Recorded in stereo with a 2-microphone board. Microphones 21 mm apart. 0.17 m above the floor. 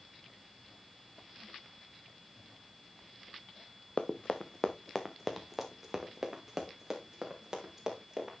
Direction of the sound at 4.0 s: 55° left (ahead or behind).